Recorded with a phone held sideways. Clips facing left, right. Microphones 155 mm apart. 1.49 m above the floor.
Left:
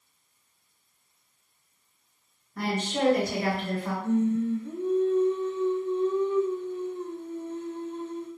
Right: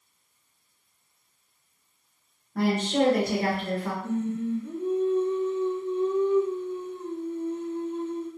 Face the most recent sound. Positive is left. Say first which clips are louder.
# left 7 dB
turn(degrees=-10)  # may be behind; listen again after turning